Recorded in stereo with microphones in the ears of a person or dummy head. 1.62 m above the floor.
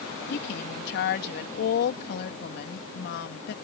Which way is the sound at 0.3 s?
60° left (ahead or behind).